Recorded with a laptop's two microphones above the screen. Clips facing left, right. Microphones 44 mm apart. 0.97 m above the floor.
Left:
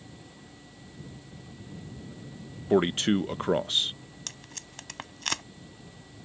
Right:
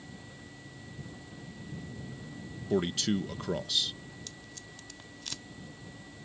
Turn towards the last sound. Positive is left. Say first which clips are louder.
# left 2 dB
turn(degrees=70)  # may be behind; listen again after turning